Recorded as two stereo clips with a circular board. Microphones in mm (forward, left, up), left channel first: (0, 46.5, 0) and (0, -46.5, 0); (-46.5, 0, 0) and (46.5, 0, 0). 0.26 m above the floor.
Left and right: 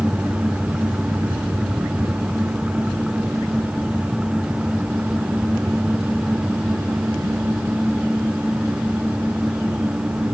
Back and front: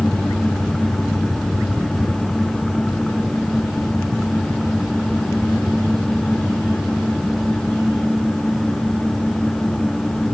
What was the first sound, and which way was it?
Only background noise.